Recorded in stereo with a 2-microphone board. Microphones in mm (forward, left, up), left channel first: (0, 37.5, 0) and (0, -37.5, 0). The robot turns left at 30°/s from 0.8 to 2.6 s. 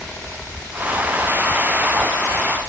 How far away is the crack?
I don't hear a crack.